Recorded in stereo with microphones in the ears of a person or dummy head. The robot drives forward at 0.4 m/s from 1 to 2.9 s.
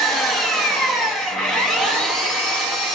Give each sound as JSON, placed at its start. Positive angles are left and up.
{"t": 0.0, "sound": "an engine running", "side_deg": 5, "distance_m": 0.7}